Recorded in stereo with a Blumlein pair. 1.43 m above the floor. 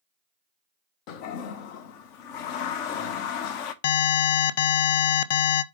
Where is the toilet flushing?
40° left, 0.9 m.